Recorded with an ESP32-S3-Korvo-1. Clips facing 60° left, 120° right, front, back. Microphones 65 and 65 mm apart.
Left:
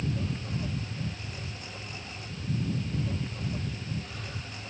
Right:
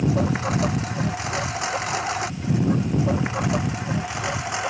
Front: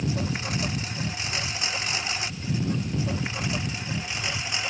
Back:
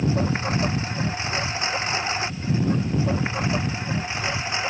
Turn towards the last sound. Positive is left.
turn(degrees=-115)